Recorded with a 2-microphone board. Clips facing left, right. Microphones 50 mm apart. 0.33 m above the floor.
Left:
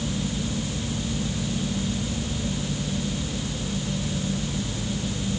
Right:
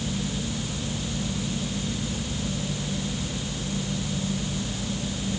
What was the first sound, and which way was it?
Only background noise.